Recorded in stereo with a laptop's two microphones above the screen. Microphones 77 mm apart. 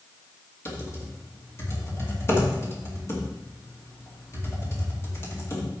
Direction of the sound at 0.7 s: 35° left (ahead or behind).